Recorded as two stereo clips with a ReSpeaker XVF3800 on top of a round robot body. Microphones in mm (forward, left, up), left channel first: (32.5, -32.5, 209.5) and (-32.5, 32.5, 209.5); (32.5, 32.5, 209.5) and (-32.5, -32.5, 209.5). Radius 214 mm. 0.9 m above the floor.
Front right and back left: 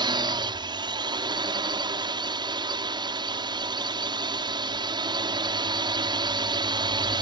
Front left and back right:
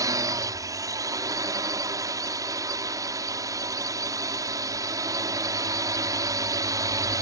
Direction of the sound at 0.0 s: 175° left.